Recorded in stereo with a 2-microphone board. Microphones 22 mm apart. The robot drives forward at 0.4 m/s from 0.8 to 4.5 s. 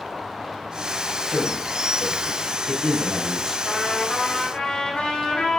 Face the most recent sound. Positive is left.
turn(degrees=70)  # may be behind; listen again after turning